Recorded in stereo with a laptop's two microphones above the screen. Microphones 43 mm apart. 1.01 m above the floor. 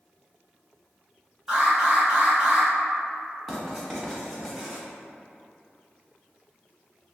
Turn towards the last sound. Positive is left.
turn(degrees=0)  # may be behind; listen again after turning